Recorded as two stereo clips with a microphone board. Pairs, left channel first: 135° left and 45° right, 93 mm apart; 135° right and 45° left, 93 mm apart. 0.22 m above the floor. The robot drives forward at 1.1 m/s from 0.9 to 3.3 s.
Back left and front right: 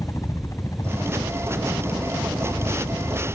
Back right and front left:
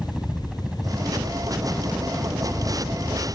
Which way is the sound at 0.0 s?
120° left.